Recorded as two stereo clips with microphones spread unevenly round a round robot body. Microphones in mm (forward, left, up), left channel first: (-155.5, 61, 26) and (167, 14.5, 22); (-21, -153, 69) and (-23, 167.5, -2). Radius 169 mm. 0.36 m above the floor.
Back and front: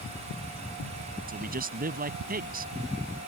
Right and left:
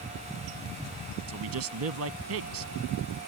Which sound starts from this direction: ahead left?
A man speaking, at 1.3 s.